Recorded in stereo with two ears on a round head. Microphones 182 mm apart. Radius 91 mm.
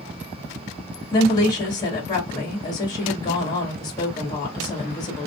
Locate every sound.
1.1 s a woman speaking: 20° left (ahead or behind), 1.4 m